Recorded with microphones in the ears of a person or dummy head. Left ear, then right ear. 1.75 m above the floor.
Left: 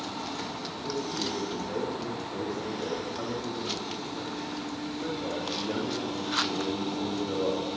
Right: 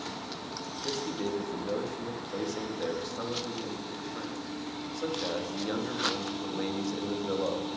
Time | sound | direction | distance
0.8 | a man speaking | 70° right (ahead or behind) | 4 m